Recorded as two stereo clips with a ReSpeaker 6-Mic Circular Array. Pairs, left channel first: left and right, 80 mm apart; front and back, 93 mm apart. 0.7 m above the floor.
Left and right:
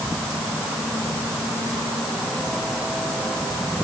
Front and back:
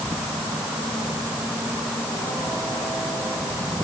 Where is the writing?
No writing in this recording.